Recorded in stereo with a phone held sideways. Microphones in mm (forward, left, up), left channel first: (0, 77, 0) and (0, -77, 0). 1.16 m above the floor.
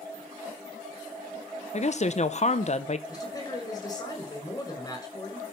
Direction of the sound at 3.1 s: 25° left (ahead or behind).